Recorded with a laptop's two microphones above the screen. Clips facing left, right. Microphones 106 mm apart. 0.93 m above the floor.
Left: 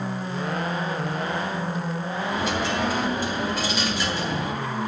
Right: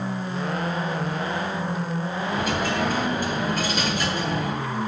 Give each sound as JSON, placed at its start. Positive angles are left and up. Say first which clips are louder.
{"t": 2.3, "sound": "a dropped coin", "louder": "right 1 dB", "side_deg": -50, "distance_m": 3.0}